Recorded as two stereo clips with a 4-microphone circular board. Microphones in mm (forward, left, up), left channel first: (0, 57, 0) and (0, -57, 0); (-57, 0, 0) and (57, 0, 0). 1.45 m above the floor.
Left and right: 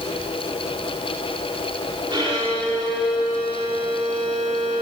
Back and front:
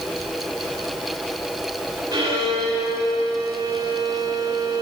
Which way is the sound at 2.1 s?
40° right.